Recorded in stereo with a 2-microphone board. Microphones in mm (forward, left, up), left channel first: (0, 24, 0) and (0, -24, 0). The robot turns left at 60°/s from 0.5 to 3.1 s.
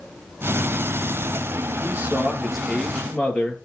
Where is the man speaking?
135° right, 3 m; by 3.6 s 145° left, 3 m.